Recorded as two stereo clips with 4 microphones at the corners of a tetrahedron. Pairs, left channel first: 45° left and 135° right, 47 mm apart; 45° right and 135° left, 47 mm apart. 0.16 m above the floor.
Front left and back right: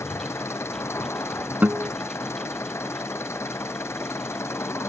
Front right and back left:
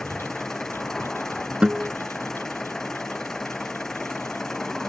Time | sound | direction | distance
0.0 | an engine running | 35° left | ?
1.6 | a guitar | 170° right | ?